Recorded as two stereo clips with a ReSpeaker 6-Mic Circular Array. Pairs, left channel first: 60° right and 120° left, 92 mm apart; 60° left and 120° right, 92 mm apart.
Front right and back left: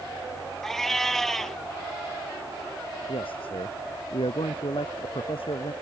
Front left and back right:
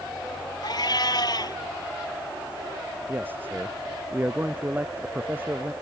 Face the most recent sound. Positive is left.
turn(degrees=-50)